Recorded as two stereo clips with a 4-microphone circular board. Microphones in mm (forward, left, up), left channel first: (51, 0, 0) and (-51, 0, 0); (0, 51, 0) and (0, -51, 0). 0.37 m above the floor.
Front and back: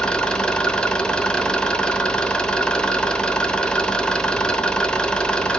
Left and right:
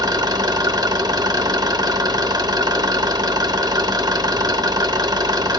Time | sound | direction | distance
0.0 | an engine running | 75° right | 0.8 m